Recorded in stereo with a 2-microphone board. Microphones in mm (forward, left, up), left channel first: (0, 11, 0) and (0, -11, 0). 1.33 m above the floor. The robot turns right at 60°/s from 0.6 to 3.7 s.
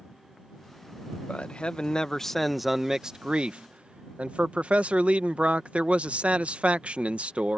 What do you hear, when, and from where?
1.3 s a man speaking: 105° left; by 7.6 s 110° right